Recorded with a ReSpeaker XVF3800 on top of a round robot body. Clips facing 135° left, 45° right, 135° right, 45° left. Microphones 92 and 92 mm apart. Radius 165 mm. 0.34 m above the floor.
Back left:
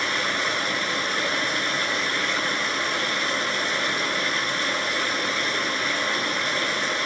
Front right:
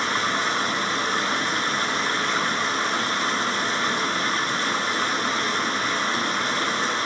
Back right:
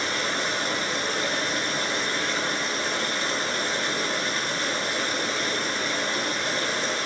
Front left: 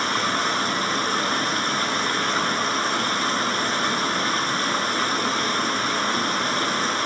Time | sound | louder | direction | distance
0.0 | running water | front right 2 dB, front left 4 dB | 5° left | 7 m